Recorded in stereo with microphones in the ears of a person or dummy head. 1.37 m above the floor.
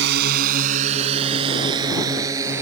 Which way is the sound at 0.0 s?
55° right (ahead or behind).